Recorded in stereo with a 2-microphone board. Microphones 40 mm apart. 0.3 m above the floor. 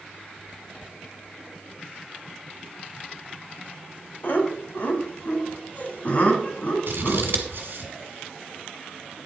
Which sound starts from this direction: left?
Laughter, at 4.2 s.